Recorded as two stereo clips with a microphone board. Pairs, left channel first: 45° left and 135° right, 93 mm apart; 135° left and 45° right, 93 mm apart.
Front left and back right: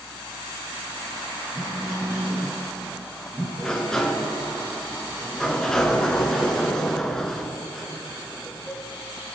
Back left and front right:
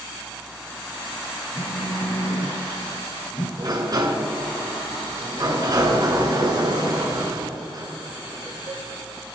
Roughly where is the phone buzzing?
Behind.